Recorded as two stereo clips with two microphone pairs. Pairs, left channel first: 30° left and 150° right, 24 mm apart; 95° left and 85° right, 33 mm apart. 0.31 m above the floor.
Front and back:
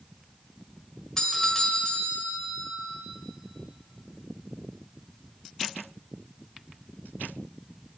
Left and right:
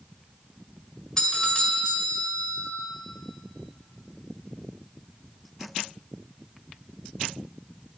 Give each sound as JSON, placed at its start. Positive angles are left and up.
{"t": 1.2, "sound": "a doorbell", "azimuth_deg": 70, "distance_m": 1.8}